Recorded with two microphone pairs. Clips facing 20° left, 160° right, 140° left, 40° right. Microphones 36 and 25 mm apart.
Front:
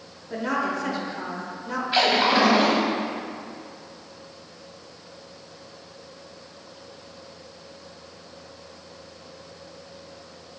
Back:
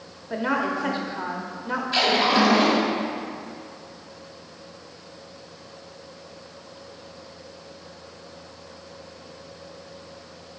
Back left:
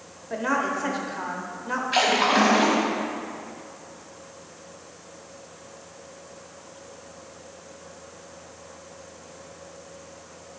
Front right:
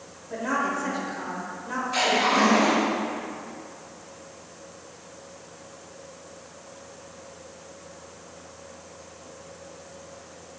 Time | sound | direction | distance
0.3 | a woman speaking | 170° left | 0.9 m
1.9 | a splash | 90° left | 1.5 m